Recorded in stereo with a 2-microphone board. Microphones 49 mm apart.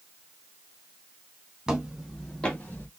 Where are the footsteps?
10° right (ahead or behind), 2.0 m; by 2.9 s 35° left (ahead or behind), 1.7 m.